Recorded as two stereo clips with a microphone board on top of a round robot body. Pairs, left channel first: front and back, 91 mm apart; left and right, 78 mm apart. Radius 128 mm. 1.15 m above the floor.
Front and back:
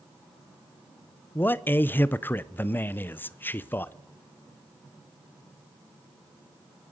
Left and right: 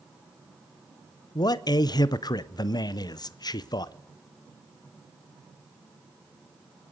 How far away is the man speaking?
About 0.7 m.